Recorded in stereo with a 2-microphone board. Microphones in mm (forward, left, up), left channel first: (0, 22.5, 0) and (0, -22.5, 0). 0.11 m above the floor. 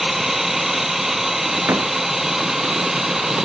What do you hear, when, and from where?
0.0 s a drone: 5° right (ahead or behind); by 3.4 s 10° right (ahead or behind)
1.7 s a door slam: 85° right